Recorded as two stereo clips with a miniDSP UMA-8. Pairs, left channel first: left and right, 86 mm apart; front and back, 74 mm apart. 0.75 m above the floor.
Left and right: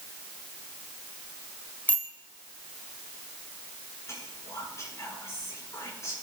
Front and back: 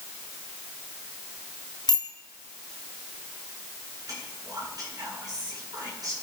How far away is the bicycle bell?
About 2.5 m.